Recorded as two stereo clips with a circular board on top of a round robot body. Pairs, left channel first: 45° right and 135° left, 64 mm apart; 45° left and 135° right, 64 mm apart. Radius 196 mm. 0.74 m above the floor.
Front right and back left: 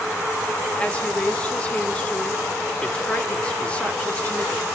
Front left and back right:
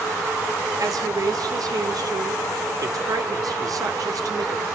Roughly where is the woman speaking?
Behind right.